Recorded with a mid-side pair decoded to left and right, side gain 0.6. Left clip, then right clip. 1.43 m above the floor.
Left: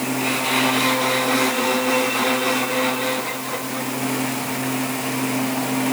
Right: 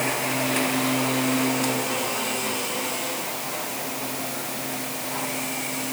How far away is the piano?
I don't hear a piano.